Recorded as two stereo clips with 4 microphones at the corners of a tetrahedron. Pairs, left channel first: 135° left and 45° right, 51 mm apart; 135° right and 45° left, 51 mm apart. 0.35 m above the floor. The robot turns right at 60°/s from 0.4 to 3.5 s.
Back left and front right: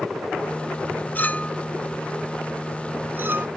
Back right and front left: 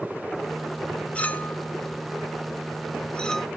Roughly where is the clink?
Behind.